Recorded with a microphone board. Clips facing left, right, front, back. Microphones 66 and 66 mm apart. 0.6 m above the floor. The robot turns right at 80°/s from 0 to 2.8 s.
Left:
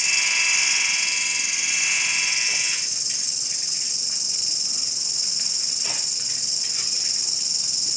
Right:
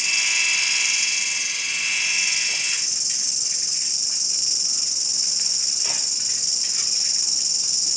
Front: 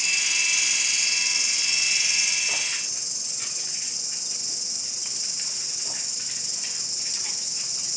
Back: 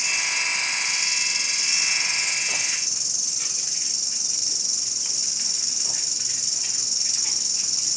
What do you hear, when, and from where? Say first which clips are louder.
0.0 s an insect: even, back 2 dB; 35° right, 6 m; by 8.0 s 170° right, 6 m